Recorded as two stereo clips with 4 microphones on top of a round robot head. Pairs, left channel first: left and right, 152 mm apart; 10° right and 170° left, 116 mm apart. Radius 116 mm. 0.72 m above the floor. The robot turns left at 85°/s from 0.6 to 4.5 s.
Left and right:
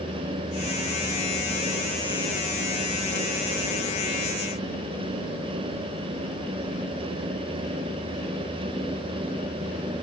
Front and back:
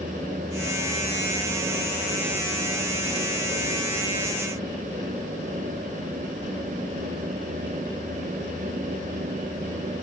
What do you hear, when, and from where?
Only background noise.